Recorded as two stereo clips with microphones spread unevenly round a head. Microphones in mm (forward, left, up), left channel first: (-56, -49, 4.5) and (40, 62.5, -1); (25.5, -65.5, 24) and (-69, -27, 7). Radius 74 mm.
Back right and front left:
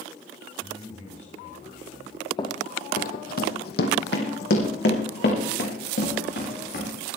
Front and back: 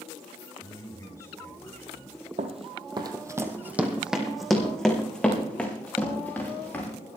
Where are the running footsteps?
175° left, 1.7 m; by 6.9 s 95° right, 6 m.